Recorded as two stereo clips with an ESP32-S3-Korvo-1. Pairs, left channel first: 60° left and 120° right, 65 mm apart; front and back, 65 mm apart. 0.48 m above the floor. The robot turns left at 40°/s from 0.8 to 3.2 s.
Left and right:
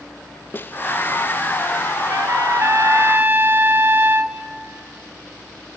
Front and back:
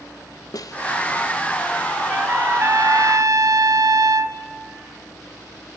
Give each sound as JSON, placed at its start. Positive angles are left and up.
{"t": 0.5, "sound": "a snare drum", "azimuth_deg": 5, "distance_m": 0.8}
{"t": 2.1, "sound": "a trumpet", "azimuth_deg": -125, "distance_m": 1.2}